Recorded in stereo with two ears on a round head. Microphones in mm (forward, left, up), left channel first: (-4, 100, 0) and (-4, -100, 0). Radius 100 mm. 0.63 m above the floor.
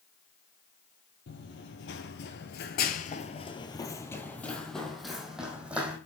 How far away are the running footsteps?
About 1.2 m.